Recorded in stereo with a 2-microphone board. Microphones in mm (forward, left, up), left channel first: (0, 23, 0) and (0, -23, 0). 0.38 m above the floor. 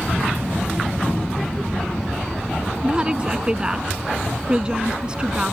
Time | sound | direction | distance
0.1 | a child speaking | 5° right (ahead or behind) | ?
2.8 | a woman speaking | 20° right (ahead or behind) | ?